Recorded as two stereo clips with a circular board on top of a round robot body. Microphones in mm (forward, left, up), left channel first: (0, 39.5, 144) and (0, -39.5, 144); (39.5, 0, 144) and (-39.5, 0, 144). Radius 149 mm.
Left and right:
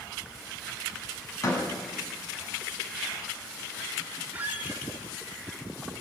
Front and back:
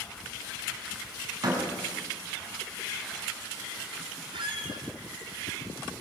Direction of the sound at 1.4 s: 135° left.